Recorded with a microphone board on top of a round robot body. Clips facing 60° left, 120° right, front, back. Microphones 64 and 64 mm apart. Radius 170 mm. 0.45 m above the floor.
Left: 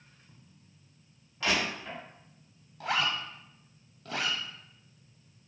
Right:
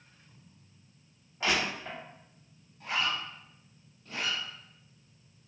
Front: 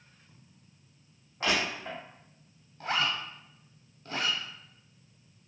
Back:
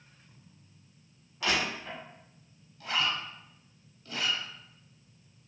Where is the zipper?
50° left, 0.6 m.